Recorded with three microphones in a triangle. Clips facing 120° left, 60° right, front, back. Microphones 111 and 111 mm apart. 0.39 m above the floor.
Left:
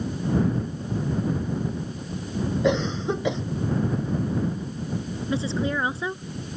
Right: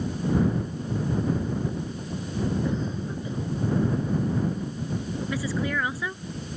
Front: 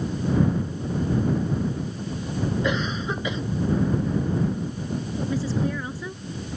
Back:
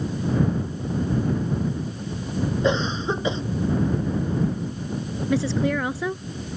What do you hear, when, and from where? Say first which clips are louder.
2.6 s a cough: left 6 dB, back 3 dB; 120° left
5.3 s a woman speaking: left 4 dB, back 5 dB; 175° right